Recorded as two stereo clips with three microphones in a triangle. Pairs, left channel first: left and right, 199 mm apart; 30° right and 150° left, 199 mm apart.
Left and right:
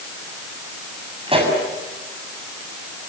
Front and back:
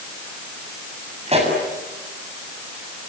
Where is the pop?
150° right, 7.5 m.